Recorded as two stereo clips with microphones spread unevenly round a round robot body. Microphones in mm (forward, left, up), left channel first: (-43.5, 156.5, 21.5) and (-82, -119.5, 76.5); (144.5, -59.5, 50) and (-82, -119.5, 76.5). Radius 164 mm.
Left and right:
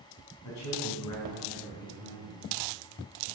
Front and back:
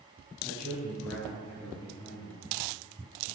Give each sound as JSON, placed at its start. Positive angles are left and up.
{"t": 0.4, "sound": "a man speaking", "azimuth_deg": 95, "distance_m": 4.0}